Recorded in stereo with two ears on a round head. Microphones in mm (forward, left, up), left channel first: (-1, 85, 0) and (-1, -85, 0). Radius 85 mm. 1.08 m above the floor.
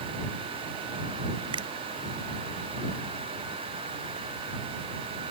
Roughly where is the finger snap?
Right.